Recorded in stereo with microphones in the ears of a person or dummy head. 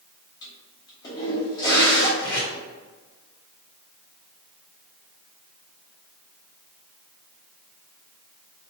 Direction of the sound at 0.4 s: 25° left (ahead or behind).